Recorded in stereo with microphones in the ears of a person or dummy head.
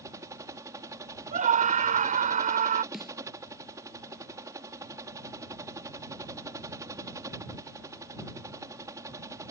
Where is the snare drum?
5° right (ahead or behind).